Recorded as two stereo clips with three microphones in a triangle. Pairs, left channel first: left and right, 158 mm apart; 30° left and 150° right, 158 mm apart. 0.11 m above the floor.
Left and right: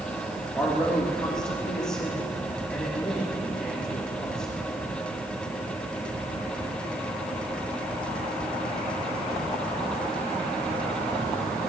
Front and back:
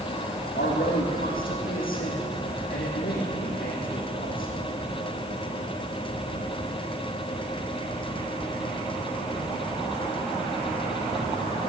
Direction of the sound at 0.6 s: 5° left.